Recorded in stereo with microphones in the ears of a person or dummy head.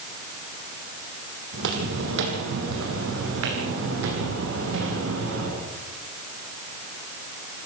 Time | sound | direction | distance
1.5 | footsteps | 60° right (ahead or behind) | 3.5 m